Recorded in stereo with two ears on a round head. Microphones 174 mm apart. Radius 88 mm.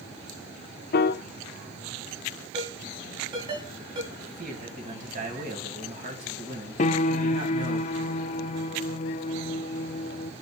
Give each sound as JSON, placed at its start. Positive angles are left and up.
{"t": 0.9, "sound": "a piano", "side_deg": 55, "distance_m": 0.6}
{"t": 2.5, "sound": "a ringtone", "side_deg": -30, "distance_m": 6.5}
{"t": 4.1, "sound": "a man speaking", "side_deg": -45, "distance_m": 3.5}
{"t": 6.8, "sound": "a piano", "side_deg": 40, "distance_m": 0.6}